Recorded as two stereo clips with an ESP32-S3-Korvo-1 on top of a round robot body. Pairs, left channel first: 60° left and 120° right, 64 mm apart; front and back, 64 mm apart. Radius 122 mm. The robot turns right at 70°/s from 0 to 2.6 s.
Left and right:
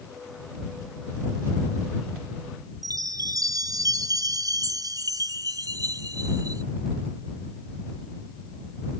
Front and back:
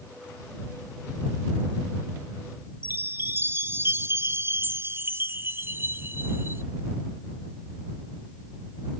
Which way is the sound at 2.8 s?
130° right.